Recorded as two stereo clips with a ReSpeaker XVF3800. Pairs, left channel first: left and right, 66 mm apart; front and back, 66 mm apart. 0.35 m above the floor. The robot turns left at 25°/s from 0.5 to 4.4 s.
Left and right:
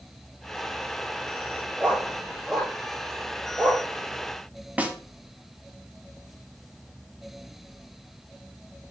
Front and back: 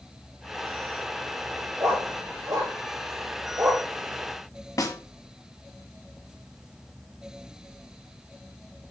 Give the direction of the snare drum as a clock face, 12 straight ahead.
1 o'clock.